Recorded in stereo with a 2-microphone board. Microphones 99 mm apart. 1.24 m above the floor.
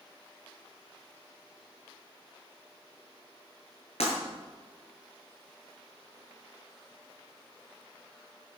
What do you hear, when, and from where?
4.0 s breaking glass: 80° left, 10 m